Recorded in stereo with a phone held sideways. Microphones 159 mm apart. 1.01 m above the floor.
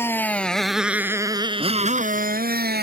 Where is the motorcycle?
15° left (ahead or behind); by 2.8 s 75° right (ahead or behind).